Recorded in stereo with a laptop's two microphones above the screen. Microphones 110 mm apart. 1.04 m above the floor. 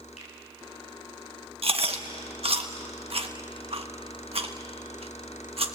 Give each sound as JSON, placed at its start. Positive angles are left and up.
{"t": 0.2, "sound": "a finger snap", "side_deg": 85, "distance_m": 8.0}
{"t": 1.6, "sound": "chewing", "side_deg": -60, "distance_m": 1.2}